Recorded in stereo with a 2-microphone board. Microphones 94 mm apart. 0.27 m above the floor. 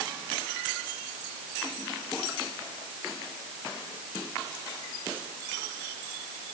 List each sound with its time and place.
Only background noise.